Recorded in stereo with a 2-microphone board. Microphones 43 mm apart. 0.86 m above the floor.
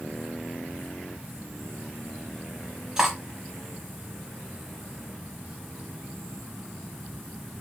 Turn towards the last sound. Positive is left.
turn(degrees=-10)  # may be behind; listen again after turning